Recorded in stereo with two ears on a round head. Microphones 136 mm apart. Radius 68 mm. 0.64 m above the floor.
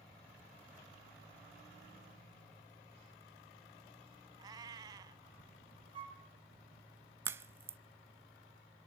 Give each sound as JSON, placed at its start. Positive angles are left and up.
{"t": 4.4, "sound": "a cat meowing", "side_deg": -25, "distance_m": 0.7}
{"t": 5.9, "sound": "a flute", "side_deg": -35, "distance_m": 4.5}
{"t": 7.2, "sound": "a crack", "side_deg": -15, "distance_m": 0.6}